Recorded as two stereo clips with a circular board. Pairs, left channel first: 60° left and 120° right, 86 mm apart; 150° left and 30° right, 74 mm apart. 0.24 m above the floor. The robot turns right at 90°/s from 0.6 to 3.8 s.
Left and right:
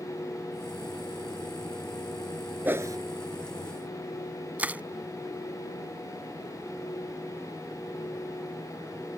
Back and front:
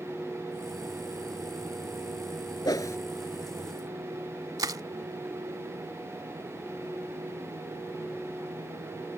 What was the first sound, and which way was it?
A whoosh, 170° left.